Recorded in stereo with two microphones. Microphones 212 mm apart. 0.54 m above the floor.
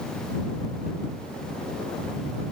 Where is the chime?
I don't hear a chime.